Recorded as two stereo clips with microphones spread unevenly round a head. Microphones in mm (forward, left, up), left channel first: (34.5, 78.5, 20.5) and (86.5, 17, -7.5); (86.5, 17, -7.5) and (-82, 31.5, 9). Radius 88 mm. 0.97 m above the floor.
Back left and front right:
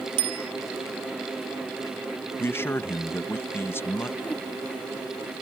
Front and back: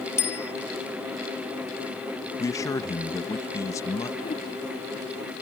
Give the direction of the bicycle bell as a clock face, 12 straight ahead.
3 o'clock.